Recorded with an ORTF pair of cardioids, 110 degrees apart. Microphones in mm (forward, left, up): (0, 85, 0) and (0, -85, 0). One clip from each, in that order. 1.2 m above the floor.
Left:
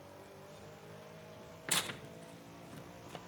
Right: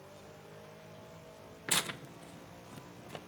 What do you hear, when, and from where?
1.7 s tearing paper: 10° right, 0.5 m